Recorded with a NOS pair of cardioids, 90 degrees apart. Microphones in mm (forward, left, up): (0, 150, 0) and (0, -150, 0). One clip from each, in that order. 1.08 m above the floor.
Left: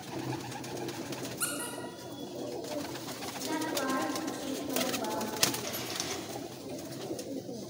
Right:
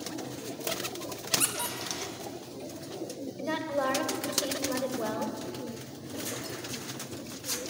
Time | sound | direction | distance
1.4 | a squeak | 60° right | 1.4 m
3.4 | a woman speaking | 65° right | 1.6 m